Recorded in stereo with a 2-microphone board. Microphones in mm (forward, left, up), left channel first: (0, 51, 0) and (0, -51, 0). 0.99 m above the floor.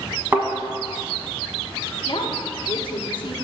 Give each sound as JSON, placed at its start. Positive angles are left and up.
{"t": 0.3, "sound": "a thud", "side_deg": -25, "distance_m": 1.1}
{"t": 2.1, "sound": "a woman speaking", "side_deg": 55, "distance_m": 0.8}